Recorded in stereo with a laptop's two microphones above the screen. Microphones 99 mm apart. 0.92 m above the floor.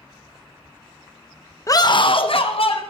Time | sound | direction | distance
1.7 | a scream | 30° left (ahead or behind) | 0.6 m